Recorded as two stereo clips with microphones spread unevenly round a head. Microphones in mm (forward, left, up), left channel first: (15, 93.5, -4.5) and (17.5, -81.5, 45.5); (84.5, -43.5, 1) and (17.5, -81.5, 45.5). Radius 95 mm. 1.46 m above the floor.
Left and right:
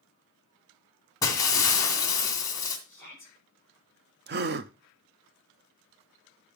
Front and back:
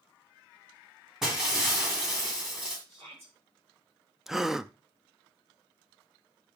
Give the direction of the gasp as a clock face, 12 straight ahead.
2 o'clock.